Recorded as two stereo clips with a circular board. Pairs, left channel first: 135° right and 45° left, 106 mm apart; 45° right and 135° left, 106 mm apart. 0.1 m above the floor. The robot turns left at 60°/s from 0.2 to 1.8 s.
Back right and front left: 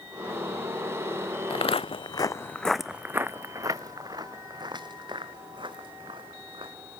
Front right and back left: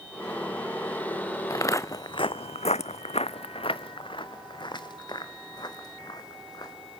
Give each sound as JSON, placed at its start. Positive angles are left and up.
{"t": 1.5, "sound": "footsteps", "azimuth_deg": -100, "distance_m": 0.7}